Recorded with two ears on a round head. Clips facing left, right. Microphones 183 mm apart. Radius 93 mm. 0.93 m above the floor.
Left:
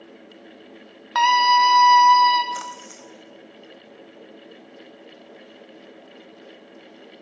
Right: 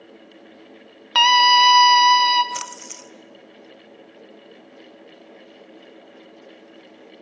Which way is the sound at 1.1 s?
40° right (ahead or behind).